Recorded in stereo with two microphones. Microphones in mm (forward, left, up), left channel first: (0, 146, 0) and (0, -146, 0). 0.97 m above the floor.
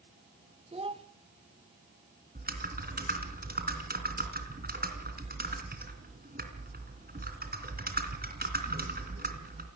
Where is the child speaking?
20° right (ahead or behind), 1.3 m.